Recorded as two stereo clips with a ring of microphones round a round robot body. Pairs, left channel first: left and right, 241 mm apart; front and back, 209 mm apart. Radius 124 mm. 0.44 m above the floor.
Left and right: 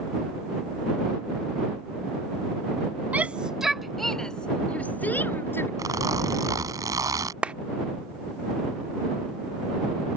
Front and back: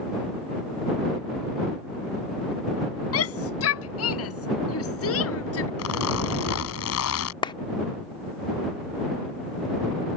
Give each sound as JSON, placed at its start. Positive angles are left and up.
{"t": 3.1, "sound": "a shout", "azimuth_deg": -5}
{"t": 5.8, "sound": "a zipper", "azimuth_deg": -15}
{"t": 7.4, "sound": "a clap", "azimuth_deg": -15}